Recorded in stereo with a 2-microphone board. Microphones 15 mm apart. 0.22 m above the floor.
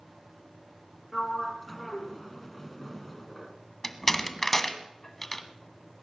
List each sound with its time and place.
1.1 s a sliding door: 10° left (ahead or behind), 1.8 m
3.8 s a door slam: 20° left (ahead or behind), 1.4 m